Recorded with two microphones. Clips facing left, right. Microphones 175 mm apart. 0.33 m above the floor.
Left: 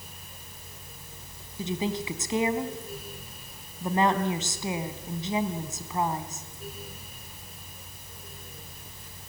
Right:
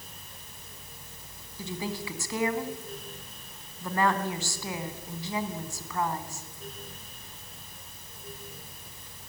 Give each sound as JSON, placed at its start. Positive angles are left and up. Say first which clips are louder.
{"t": 1.6, "sound": "a woman speaking", "louder": "left 5 dB", "side_deg": 20, "distance_m": 2.0}